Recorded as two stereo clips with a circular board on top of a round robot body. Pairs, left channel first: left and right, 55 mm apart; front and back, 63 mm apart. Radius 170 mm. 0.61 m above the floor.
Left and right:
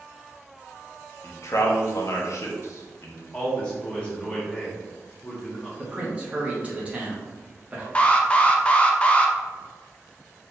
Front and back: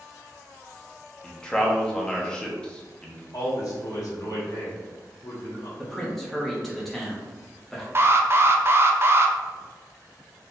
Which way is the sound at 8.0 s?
150° left.